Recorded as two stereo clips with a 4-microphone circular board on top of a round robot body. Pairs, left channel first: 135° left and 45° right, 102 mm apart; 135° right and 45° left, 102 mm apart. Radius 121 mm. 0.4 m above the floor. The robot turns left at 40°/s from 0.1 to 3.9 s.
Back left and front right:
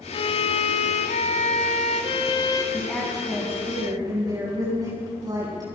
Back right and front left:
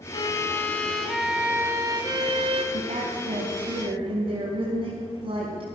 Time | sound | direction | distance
0.1 | a violin | 175° left | 1.3 m
2.7 | a woman speaking | 55° left | 4 m